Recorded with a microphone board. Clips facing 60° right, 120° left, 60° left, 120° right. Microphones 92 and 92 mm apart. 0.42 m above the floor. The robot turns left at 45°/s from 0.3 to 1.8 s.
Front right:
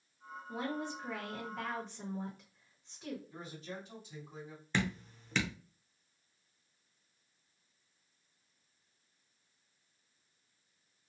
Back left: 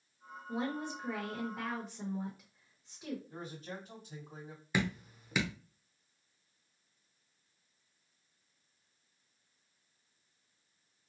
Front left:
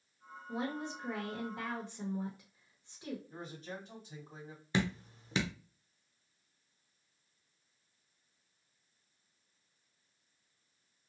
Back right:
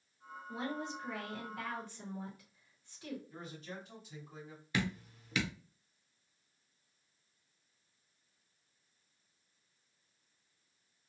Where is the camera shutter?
No camera shutter in this recording.